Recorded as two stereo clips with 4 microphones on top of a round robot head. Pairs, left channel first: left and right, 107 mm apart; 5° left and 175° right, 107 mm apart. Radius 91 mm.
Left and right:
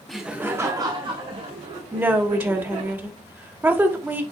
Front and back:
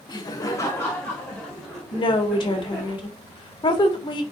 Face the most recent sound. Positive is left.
turn(degrees=-20)